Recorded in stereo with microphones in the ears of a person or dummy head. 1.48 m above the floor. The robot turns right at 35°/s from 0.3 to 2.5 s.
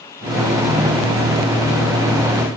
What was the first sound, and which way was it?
Only background noise.